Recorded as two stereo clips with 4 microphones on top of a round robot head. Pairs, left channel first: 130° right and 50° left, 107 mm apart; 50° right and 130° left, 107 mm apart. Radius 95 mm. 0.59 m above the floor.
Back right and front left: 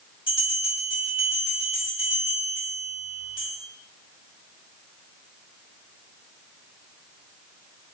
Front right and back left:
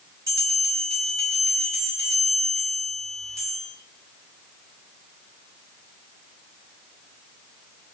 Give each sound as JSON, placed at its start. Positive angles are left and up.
{"t": 0.3, "sound": "a bell", "azimuth_deg": -170, "distance_m": 1.9}